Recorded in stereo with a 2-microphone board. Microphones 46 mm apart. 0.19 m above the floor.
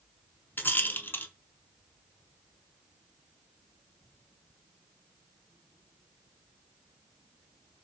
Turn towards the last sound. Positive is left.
turn(degrees=50)  # may be behind; listen again after turning